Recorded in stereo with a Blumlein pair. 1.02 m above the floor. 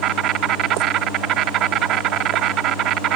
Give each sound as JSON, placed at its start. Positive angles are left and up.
{"t": 0.0, "sound": "an insect", "azimuth_deg": -35}